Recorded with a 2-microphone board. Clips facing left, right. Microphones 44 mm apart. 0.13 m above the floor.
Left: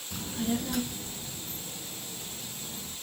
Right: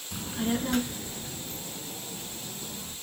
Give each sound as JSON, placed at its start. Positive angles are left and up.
{"t": 0.1, "sound": "a child speaking", "side_deg": -10, "distance_m": 0.6}